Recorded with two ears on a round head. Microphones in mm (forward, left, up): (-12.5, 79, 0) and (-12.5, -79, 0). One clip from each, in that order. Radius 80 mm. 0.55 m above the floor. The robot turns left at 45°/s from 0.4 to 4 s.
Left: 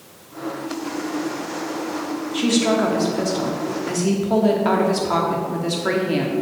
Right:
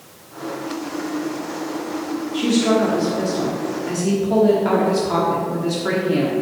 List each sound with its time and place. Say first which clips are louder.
2.3 s a woman speaking: right 1 dB; 25° left (ahead or behind), 1.1 m; by 6.3 s 20° left (ahead or behind), 1.1 m